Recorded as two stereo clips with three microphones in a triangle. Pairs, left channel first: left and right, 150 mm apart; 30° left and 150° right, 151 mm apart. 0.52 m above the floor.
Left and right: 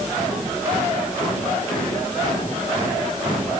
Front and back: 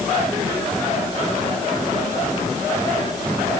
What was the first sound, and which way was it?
Only background noise.